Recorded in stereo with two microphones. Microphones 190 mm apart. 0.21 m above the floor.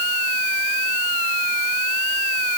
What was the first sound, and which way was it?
Only background noise.